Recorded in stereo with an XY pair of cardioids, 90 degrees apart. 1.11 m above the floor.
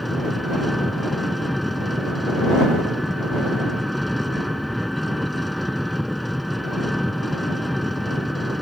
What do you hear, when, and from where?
0.0 s an engine running: 5° left